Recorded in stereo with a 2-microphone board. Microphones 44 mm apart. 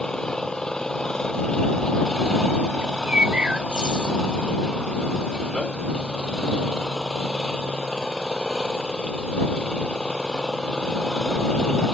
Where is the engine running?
15° left (ahead or behind).